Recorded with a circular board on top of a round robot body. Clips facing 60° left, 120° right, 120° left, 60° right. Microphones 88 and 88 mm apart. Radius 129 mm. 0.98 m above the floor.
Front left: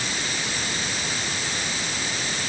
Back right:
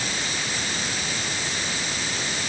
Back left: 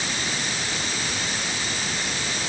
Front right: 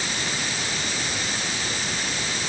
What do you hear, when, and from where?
Only background noise.